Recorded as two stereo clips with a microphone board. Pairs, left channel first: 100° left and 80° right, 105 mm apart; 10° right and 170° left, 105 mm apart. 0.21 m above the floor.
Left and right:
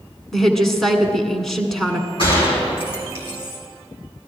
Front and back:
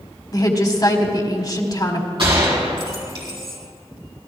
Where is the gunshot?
130° left, 4 m.